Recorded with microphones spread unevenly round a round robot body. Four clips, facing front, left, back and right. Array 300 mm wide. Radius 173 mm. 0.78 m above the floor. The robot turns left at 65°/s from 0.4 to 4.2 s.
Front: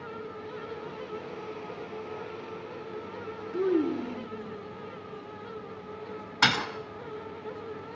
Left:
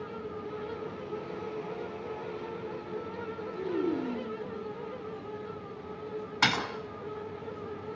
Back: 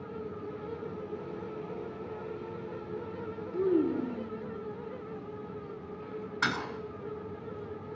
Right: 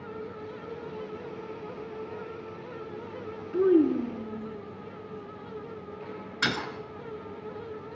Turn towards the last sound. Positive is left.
turn(degrees=30)